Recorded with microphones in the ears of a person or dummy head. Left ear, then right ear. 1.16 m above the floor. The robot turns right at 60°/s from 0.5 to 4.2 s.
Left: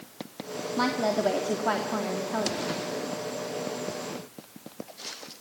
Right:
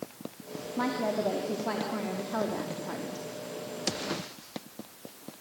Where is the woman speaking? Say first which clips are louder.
Left 4 dB; 80° left, 2.5 m; by 3.2 s 130° right, 2.5 m.